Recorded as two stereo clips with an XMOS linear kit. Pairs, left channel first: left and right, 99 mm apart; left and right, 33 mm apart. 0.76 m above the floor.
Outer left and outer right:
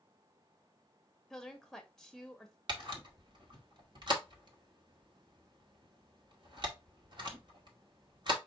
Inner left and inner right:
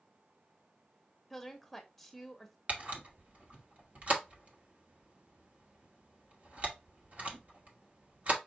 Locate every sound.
1.3 s a woman speaking: 5° left (ahead or behind), 0.7 m
2.7 s a camera shutter: 50° right (ahead or behind), 1.2 m